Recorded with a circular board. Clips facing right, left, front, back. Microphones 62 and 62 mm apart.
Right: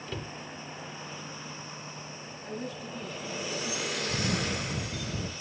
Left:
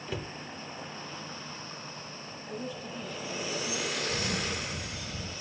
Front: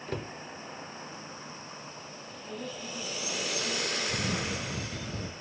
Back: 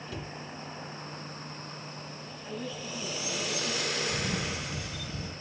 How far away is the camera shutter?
About 0.6 m.